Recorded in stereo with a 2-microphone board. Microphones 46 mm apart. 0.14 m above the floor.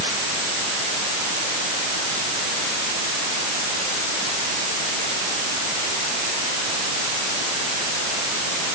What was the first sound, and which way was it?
Only background noise.